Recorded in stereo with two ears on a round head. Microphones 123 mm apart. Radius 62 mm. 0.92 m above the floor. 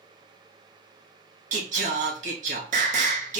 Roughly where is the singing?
Right.